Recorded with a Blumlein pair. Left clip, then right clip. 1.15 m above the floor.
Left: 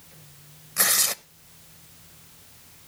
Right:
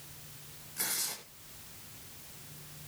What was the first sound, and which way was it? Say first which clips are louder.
Tearing paper: left 13 dB; 35° left.